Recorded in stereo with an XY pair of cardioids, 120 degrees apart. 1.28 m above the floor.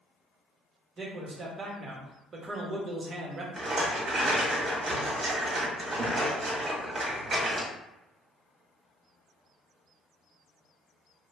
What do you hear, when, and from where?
1.0 s a man speaking: 35° right, 1.0 m
3.6 s a rattle: 40° right, 1.2 m